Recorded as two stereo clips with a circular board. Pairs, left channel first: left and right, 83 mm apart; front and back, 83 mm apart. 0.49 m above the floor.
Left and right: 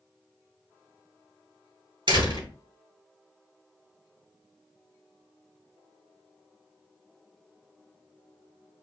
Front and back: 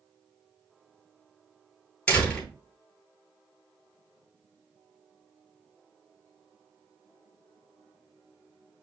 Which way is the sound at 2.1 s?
70° right.